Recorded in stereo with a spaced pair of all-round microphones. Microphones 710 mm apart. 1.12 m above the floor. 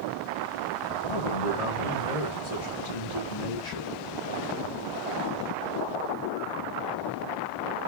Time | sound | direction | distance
1.1 | a man speaking | 50° left (ahead or behind) | 2.5 m